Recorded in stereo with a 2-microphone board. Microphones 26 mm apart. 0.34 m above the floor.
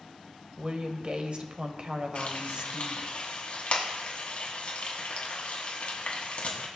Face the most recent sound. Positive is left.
turn(degrees=55)  # may be behind; listen again after turning